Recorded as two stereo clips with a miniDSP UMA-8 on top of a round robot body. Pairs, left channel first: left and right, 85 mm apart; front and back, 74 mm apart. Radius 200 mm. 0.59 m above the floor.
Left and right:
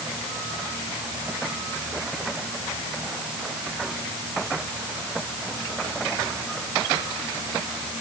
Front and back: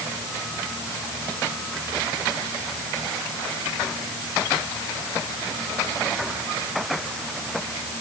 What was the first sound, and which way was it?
Only background noise.